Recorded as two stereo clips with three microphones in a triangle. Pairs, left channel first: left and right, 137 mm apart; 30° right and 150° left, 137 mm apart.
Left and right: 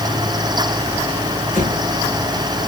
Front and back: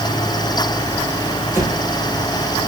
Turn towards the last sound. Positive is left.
turn(degrees=-65)